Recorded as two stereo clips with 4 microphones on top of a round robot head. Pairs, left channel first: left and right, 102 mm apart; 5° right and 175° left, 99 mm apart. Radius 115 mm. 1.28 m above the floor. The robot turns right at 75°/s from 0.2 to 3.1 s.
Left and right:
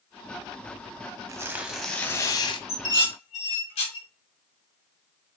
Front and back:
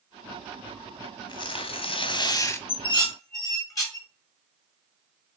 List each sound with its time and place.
1.3 s tearing paper: 40° right, 0.7 m; by 2.6 s 60° left, 0.7 m
2.7 s dishes clattering: 20° left, 1.3 m; by 4.1 s 50° left, 1.3 m